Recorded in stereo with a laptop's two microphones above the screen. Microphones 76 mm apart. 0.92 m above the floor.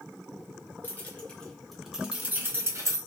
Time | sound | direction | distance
0.8 | keys jangling | 25° left (ahead or behind) | 1.4 m